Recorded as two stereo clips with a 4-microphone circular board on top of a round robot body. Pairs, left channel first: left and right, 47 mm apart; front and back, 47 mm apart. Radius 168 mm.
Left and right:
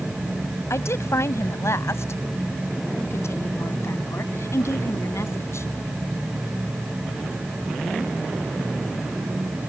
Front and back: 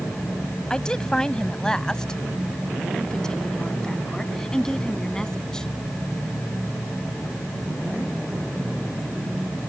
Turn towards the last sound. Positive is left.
turn(degrees=75)